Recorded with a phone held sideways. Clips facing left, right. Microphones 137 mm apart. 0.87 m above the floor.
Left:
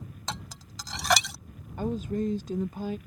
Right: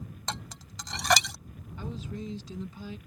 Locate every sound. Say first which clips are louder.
0.3 s dishes clattering: left 1 dB; centre (ahead or behind)
1.8 s a woman speaking: left 9 dB; 55° left (ahead or behind)